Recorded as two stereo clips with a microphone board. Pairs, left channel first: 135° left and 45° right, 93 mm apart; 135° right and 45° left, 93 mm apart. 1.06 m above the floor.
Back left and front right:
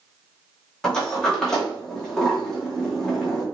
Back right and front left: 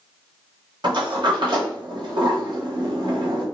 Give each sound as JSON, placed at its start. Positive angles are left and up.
{"t": 0.8, "sound": "a sliding door", "azimuth_deg": 50, "distance_m": 1.0}